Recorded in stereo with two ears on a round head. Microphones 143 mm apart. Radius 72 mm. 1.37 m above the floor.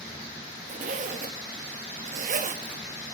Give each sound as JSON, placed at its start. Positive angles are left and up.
{"t": 0.7, "sound": "a zipper", "side_deg": -50, "distance_m": 1.1}